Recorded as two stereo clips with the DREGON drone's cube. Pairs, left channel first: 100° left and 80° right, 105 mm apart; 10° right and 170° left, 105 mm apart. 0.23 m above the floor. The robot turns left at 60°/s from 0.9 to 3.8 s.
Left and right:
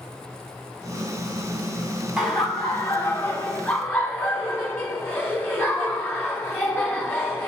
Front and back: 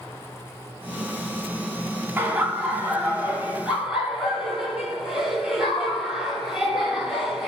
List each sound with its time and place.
2.2 s laughter: 160° right, 1.1 m; by 7.5 s 100° left, 1.1 m